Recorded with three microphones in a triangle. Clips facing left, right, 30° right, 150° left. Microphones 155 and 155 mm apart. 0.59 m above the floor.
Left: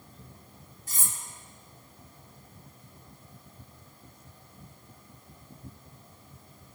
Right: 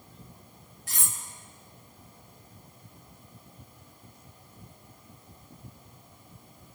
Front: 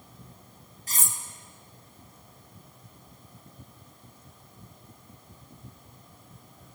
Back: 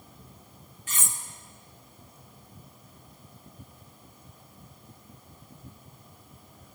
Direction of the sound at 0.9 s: 85° right.